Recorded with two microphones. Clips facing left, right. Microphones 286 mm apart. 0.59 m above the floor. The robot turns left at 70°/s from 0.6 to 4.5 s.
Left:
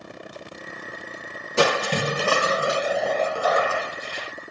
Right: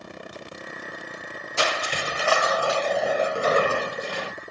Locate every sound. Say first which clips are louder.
1.6 s crushing: left 8 dB; 100° left; by 4.3 s 90° right